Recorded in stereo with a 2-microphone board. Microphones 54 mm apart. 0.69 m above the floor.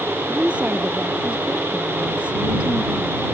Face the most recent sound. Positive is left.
turn(degrees=-20)  # may be behind; listen again after turning